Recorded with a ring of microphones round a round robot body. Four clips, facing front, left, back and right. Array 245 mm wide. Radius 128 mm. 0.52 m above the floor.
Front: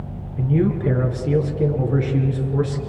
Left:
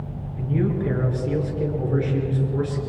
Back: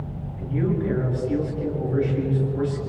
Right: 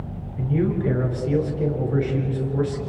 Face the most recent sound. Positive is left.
turn(degrees=0)